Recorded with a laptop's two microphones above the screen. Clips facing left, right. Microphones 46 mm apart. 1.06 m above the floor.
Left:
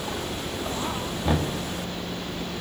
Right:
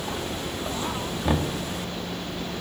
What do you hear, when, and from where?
1.2 s knocking: 5° right (ahead or behind), 2 m